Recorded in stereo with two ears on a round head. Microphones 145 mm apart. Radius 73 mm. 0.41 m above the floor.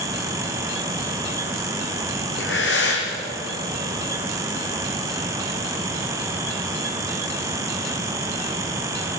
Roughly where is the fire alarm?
I don't hear a fire alarm.